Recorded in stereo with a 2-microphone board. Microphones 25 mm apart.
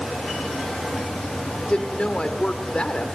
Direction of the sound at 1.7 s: 45° left (ahead or behind).